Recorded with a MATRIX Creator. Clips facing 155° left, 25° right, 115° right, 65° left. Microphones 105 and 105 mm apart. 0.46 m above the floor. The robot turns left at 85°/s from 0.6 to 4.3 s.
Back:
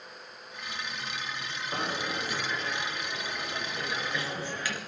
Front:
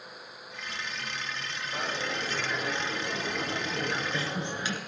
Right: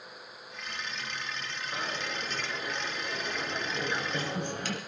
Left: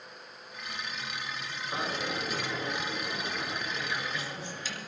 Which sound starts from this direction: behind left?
A dropped coin, at 1.7 s.